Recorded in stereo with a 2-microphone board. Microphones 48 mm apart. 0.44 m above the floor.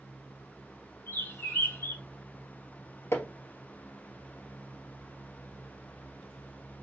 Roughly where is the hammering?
Left.